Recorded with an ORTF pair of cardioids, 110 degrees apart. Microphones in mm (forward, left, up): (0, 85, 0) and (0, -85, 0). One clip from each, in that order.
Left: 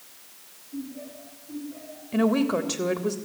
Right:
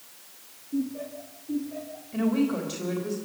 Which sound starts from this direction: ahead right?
Laughter, at 0.7 s.